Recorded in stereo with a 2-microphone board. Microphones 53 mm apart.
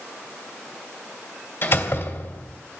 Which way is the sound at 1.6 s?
50° left (ahead or behind).